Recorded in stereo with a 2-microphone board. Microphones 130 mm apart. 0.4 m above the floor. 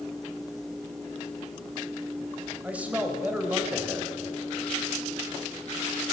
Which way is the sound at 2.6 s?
10° right (ahead or behind).